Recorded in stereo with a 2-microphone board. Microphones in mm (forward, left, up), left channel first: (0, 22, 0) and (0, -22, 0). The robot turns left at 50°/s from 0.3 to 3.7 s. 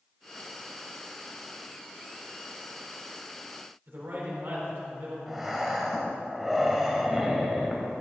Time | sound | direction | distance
3.9 | a man speaking | 65° right (ahead or behind) | 4 m
5.3 | breathing | 5° right (ahead or behind) | 2.0 m